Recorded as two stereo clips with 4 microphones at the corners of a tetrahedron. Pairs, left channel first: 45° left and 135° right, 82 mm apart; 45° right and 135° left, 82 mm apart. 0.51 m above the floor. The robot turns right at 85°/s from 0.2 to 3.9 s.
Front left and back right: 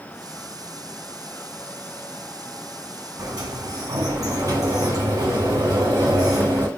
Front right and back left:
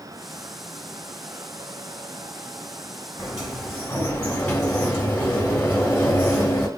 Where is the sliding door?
165° right, 1.6 m; by 6.7 s 105° right, 1.6 m.